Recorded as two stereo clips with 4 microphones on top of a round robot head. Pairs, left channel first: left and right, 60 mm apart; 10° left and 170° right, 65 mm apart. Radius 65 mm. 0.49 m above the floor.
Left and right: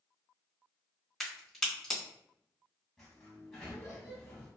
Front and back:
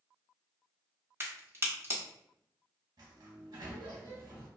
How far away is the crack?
About 1.3 m.